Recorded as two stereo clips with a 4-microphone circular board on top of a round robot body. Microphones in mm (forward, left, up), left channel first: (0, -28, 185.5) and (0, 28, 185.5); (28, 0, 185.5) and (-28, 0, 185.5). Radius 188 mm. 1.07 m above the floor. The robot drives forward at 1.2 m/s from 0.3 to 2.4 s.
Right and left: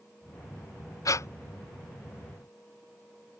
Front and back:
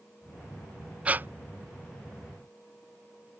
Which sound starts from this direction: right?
Breathing, at 1.1 s.